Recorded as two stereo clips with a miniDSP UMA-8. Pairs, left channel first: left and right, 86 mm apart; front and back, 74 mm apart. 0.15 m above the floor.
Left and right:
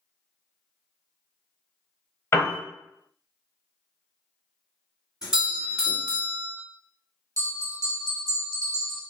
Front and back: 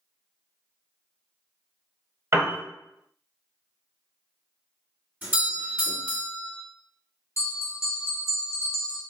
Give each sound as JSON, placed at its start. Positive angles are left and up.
{"t": 2.3, "sound": "a piano", "azimuth_deg": 145, "distance_m": 1.0}
{"t": 5.2, "sound": "a doorbell", "azimuth_deg": -155, "distance_m": 1.8}
{"t": 7.4, "sound": "a bell", "azimuth_deg": -50, "distance_m": 0.9}